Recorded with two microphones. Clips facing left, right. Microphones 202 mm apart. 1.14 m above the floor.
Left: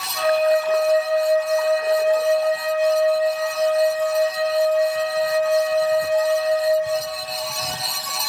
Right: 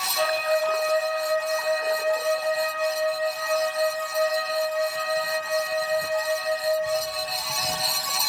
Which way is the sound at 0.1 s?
80° left.